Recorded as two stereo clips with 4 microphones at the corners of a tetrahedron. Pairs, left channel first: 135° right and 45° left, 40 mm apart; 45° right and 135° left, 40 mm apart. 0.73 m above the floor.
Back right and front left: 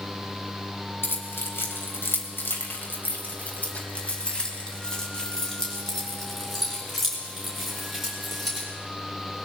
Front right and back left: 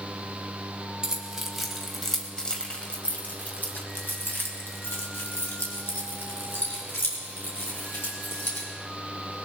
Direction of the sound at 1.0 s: 150° right.